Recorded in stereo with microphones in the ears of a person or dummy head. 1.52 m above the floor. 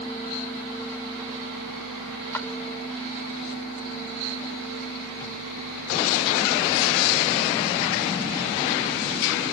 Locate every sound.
2.3 s a clap: 10° left (ahead or behind)